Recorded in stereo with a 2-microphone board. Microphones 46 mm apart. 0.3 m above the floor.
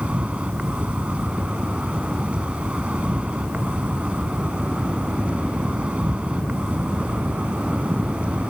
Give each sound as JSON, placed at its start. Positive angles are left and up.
{"t": 0.0, "sound": "an insect", "side_deg": -25}